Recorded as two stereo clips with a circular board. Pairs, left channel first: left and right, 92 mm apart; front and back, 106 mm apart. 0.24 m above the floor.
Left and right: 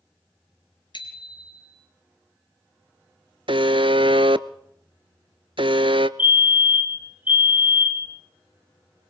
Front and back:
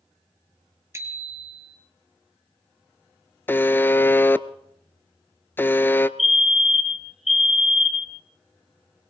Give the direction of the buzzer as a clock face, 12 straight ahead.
2 o'clock.